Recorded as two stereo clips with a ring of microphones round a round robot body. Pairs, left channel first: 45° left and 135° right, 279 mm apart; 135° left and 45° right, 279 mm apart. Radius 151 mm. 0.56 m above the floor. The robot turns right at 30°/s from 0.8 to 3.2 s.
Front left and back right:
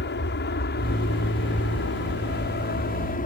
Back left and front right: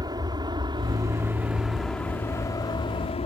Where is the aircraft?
25° left; by 3.3 s 80° left.